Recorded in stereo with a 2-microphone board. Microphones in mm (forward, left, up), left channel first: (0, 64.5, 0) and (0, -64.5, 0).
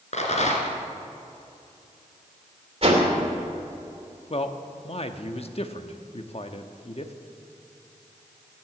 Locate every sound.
0.1 s a rattle: 60° left (ahead or behind), 2 m
2.8 s a whoosh: 50° right (ahead or behind), 2.5 m
4.3 s a man speaking: 50° left (ahead or behind), 0.9 m